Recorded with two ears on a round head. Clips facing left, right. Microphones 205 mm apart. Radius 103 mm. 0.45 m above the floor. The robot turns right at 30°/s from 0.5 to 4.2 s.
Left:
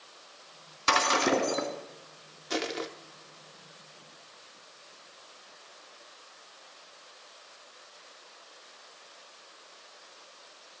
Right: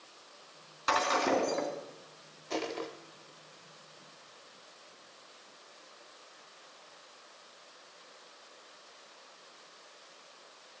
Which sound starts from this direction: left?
Breaking glass, at 0.9 s.